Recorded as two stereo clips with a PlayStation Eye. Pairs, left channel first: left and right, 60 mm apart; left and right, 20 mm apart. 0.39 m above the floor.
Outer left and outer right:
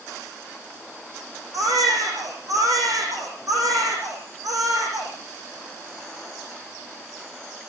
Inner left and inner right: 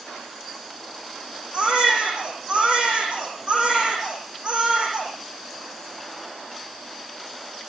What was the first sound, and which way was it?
A baby crying, 60° right (ahead or behind).